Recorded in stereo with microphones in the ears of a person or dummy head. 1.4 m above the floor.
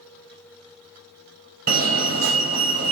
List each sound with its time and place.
1.7 s a fire alarm: 45° right (ahead or behind), 1.1 m